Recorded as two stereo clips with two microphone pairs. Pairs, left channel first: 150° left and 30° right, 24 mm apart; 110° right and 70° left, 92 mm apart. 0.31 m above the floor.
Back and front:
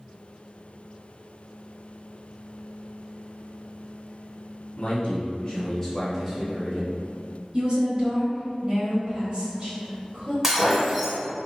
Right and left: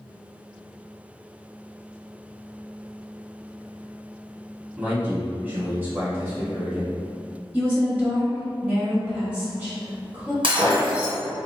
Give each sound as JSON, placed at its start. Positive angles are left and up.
{"t": 4.8, "sound": "a man speaking", "azimuth_deg": 140, "distance_m": 1.4}
{"t": 7.5, "sound": "a woman speaking", "azimuth_deg": 0, "distance_m": 1.1}
{"t": 10.4, "sound": "breaking glass", "azimuth_deg": 50, "distance_m": 1.6}